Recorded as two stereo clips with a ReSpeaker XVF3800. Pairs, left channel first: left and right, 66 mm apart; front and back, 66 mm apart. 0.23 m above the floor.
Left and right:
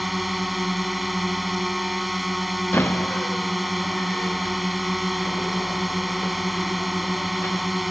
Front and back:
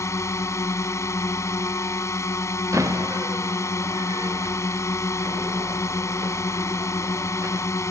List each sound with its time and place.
0.0 s a drone: straight ahead
2.7 s a door slam: 145° left